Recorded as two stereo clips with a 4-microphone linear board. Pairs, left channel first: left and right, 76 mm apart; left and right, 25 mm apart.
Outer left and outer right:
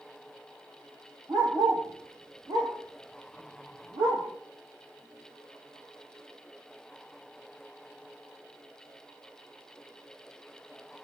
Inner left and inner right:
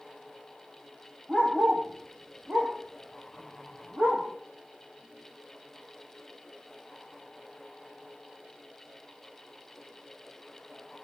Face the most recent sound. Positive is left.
turn(degrees=-90)